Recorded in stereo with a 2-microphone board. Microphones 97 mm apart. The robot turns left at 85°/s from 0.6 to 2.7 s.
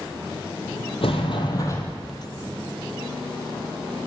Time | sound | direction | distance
1.0 | a sliding door | 95° left | 0.7 m